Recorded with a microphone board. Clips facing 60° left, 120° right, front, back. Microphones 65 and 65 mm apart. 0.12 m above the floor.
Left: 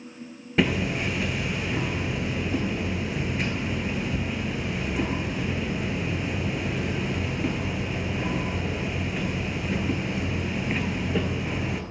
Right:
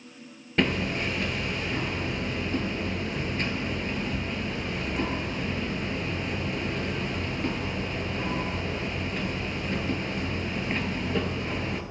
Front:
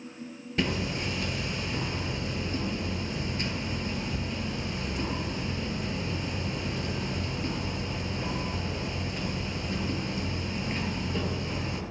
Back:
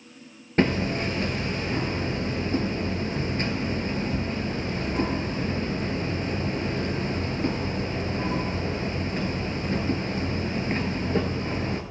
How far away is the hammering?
About 1.1 m.